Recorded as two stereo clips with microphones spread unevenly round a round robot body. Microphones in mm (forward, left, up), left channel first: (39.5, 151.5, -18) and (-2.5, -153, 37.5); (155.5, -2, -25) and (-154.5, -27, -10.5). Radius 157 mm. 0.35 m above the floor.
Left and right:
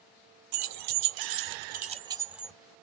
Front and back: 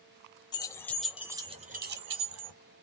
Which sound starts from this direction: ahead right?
Keys jangling, at 0.5 s.